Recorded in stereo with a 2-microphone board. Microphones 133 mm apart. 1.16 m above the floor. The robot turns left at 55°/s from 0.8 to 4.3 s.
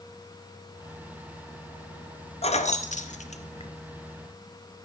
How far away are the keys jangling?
About 0.7 m.